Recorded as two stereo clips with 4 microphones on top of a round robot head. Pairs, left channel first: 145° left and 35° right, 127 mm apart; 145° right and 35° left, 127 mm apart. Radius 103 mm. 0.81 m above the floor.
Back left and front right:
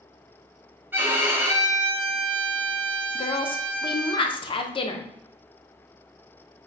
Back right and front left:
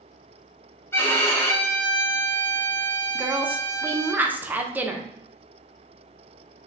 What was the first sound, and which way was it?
A violin, 90° right.